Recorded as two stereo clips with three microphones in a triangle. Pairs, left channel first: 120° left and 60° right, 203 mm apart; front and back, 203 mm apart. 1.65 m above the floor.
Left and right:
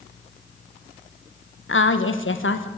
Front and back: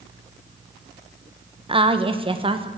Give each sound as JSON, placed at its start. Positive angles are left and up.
{"t": 1.7, "sound": "a woman speaking", "azimuth_deg": 115, "distance_m": 1.3}